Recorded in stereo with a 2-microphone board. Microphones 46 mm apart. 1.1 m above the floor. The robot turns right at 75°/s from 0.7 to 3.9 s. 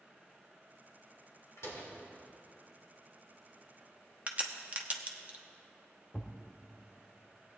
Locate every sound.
1.6 s a door slam: 75° left (ahead or behind), 2.5 m; by 1.9 s 50° left (ahead or behind), 2.5 m
4.3 s a crack: 30° right (ahead or behind), 0.8 m
6.1 s a thud: 25° left (ahead or behind), 0.9 m